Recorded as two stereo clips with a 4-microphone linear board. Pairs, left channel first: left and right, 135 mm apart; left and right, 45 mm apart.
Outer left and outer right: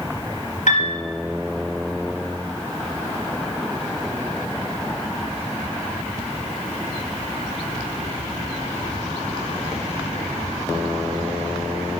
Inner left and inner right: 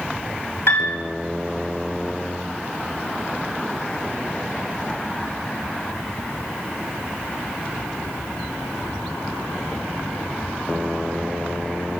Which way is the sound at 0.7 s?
70° left (ahead or behind).